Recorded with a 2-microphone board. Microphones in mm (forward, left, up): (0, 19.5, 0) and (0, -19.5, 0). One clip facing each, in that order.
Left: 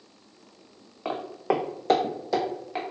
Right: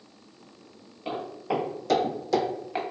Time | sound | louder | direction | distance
1.1 | footsteps | left 3 dB | 75° left (ahead or behind) | 0.7 m